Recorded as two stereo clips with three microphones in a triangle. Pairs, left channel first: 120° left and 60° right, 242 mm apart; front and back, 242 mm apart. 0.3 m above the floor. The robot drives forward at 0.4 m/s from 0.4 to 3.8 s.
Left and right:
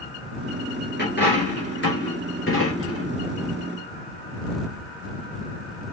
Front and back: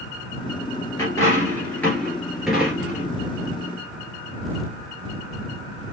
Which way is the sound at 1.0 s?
75° left.